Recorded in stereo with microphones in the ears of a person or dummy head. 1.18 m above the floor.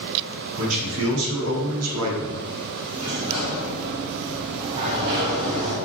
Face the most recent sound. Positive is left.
turn(degrees=-20)  # may be behind; listen again after turning